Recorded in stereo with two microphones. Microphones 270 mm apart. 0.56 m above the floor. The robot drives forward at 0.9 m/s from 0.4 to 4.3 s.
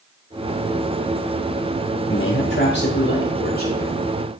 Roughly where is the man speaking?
Left.